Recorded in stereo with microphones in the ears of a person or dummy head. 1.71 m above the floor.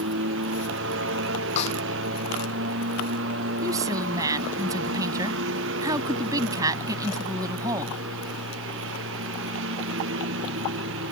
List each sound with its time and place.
0.0 s a lawn mower: 75° right (ahead or behind)
1.6 s a snare drum: 40° left (ahead or behind)
3.6 s a woman speaking: 20° right (ahead or behind)